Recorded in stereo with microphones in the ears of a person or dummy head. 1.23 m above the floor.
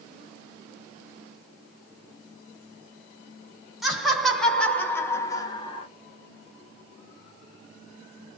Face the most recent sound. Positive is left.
turn(degrees=35)  # may be behind; listen again after turning